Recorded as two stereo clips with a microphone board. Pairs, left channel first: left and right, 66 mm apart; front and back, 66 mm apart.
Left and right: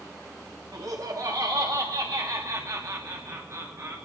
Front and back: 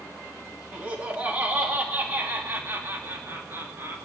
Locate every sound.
0.7 s laughter: 125° right, 2 m; by 4.0 s 150° right, 3.5 m